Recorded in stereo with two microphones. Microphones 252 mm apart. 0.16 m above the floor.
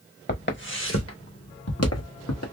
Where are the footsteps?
40° left (ahead or behind), 1.4 m; by 2.4 s 85° left, 1.8 m.